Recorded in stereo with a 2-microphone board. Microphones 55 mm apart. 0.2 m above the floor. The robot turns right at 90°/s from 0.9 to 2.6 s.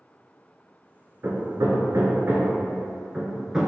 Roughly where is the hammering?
Right.